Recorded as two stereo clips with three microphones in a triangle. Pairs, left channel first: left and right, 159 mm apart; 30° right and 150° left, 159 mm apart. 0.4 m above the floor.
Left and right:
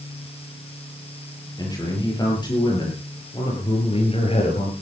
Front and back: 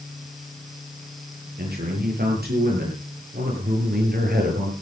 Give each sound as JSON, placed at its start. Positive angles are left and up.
{"t": 1.6, "sound": "a man speaking", "azimuth_deg": 155, "distance_m": 9.5}